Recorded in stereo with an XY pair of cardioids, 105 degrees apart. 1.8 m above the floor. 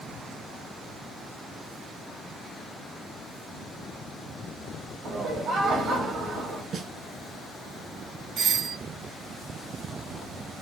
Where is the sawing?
No sawing in this recording.